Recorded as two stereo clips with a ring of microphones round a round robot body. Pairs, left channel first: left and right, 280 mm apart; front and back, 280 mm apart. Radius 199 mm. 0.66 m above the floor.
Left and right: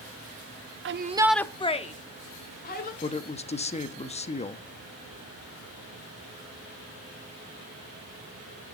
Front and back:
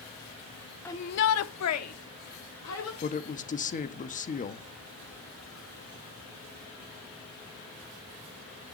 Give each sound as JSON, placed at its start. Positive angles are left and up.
{"t": 0.8, "sound": "a shout", "azimuth_deg": -80, "distance_m": 0.6}
{"t": 3.0, "sound": "a woman speaking", "azimuth_deg": 40, "distance_m": 1.0}